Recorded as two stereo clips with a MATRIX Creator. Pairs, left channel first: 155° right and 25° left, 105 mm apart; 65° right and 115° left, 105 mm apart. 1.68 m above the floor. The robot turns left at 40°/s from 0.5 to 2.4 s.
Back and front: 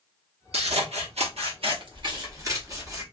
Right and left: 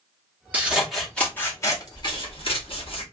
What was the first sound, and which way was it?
Scissors, 40° left.